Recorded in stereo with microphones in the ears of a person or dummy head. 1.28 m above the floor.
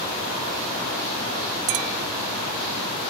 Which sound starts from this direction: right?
A clink, at 1.7 s.